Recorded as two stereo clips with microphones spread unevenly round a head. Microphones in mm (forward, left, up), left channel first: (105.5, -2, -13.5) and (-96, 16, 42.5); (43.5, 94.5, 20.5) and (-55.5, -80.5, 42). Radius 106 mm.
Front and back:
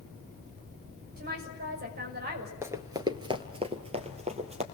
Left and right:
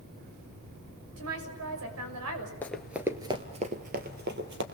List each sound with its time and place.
1.2 s a woman speaking: 140° right, 6 m
2.6 s running footsteps: 145° left, 1.7 m; by 4.6 s 140° right, 3 m